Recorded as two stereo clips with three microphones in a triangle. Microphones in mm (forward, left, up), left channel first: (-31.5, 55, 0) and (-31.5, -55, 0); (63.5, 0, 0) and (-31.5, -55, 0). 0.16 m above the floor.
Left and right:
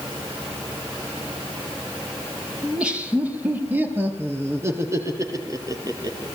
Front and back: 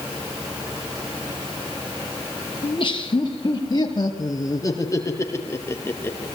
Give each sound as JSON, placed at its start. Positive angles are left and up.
{"t": 2.6, "sound": "laughter", "azimuth_deg": -10, "distance_m": 4.0}